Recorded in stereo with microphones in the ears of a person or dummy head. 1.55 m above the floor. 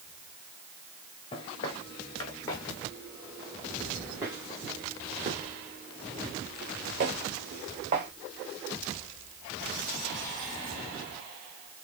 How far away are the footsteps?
About 1.8 m.